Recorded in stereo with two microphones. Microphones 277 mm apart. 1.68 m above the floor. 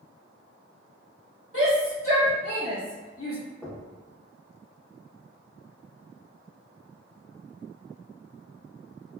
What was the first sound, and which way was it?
A shout, 50° left (ahead or behind).